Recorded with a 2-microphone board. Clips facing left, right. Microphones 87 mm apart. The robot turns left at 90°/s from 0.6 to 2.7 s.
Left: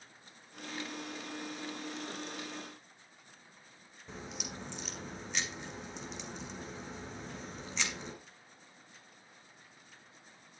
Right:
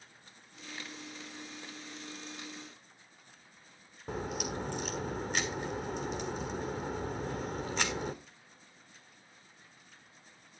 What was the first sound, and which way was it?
A crack, 50° right (ahead or behind).